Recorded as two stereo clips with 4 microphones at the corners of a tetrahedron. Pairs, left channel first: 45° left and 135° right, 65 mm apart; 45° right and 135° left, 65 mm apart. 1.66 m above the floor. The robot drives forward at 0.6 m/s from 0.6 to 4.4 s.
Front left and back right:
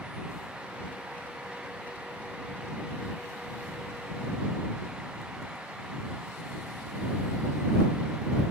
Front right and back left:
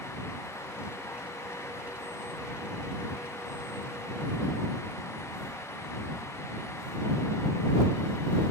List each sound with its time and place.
Only background noise.